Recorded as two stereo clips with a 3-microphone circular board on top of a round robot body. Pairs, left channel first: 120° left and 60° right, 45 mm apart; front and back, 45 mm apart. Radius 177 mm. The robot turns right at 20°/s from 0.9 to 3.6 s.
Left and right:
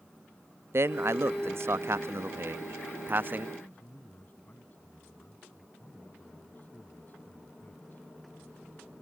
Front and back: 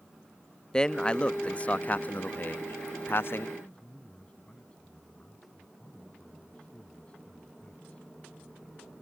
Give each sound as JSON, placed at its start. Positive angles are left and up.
{"t": 0.7, "sound": "a man speaking", "azimuth_deg": -70}
{"t": 3.6, "sound": "a man speaking", "azimuth_deg": 65}